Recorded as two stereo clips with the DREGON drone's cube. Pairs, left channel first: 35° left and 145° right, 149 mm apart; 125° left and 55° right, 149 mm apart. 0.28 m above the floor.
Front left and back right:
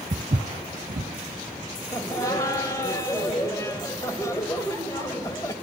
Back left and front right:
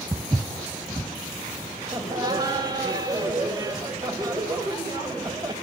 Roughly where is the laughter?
Ahead.